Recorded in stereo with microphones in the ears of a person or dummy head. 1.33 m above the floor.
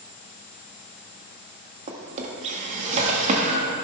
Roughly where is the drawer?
Right.